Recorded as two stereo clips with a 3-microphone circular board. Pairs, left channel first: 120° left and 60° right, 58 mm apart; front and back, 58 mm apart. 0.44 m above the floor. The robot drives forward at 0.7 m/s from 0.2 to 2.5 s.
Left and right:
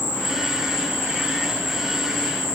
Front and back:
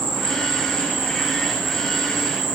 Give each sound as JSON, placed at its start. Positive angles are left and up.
{"t": 0.0, "sound": "an insect", "azimuth_deg": 80, "distance_m": 7.0}